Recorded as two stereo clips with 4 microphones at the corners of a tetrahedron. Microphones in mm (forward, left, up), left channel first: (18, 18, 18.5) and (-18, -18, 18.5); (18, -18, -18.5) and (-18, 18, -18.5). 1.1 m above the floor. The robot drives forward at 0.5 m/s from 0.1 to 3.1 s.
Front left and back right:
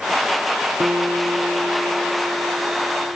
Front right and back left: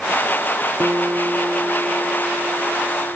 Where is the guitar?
Straight behind.